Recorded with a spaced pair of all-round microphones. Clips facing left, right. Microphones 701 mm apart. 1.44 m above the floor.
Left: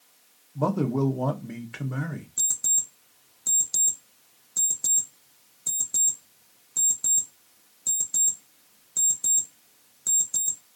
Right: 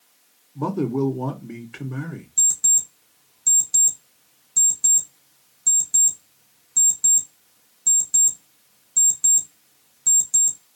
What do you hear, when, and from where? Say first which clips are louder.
0.6 s a man speaking: right 2 dB; 15° left (ahead or behind), 0.5 m
2.4 s an alarm clock: right 1 dB; 30° right (ahead or behind), 0.7 m